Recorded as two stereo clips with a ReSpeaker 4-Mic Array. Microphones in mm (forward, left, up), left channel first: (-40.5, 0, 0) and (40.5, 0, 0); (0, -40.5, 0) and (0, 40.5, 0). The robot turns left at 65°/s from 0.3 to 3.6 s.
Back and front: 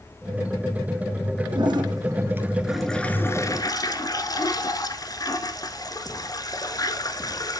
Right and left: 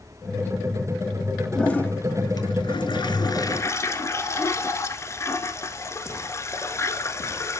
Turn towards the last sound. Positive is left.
turn(degrees=-140)